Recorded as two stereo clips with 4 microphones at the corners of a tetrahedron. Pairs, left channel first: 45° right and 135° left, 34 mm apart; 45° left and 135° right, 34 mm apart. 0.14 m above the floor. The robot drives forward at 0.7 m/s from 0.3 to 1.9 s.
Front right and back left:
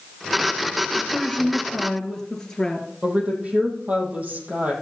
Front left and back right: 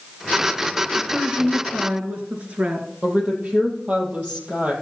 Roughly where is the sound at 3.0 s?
Behind.